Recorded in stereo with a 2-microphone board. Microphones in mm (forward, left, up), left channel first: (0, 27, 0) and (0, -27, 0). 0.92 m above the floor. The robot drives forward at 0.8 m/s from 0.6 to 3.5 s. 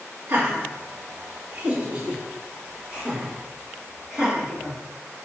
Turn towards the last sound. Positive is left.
turn(degrees=-15)  # may be behind; listen again after turning